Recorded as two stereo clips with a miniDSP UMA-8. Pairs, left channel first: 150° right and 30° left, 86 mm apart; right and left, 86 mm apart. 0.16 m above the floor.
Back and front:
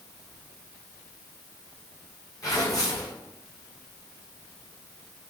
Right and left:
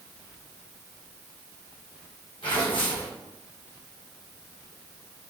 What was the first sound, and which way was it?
Tearing paper, 105° right.